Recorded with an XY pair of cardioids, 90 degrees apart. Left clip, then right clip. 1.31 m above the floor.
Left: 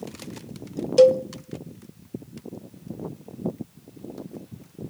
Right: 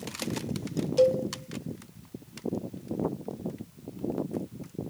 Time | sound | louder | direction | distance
1.0 | a cowbell | left 8 dB | 60° left | 0.7 m